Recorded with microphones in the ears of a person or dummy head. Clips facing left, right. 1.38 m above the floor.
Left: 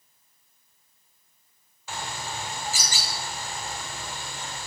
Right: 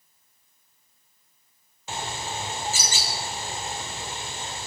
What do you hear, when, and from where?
1.9 s a bird: 20° right (ahead or behind), 1.2 m